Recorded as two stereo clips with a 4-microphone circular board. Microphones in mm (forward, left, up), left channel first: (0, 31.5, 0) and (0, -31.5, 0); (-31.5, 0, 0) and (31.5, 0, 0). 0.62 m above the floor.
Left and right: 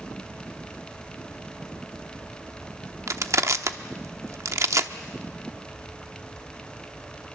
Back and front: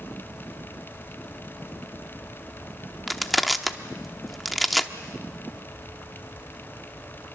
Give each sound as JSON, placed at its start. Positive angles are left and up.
{"t": 3.1, "sound": "crushing", "azimuth_deg": -90, "distance_m": 0.9}